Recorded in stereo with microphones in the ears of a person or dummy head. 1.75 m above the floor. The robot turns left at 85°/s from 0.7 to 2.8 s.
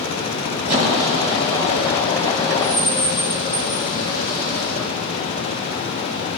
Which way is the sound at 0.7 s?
50° right (ahead or behind).